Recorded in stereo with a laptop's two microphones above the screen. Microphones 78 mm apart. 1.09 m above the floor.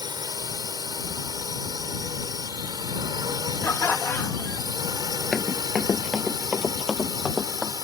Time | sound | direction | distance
0.0 | a drone | 70° right (ahead or behind) | ?
3.6 | laughter | 30° left (ahead or behind) | ?
5.3 | running footsteps | 20° left (ahead or behind) | ?